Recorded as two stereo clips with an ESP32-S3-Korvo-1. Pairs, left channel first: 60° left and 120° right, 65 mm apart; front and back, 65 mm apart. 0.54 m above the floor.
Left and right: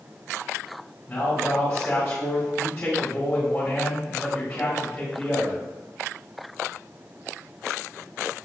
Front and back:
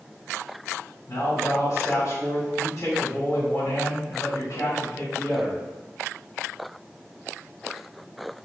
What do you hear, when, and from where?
1.1 s a man speaking: 10° right, 1.9 m